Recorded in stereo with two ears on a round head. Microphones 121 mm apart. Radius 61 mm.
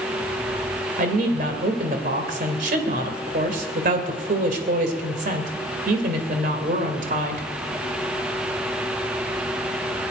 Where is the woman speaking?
65° right (ahead or behind), 2.5 m.